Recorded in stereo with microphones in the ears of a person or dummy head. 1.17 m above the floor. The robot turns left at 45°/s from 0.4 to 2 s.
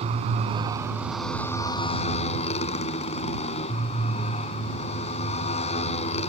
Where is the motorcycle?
145° right; by 6.3 s 145° left.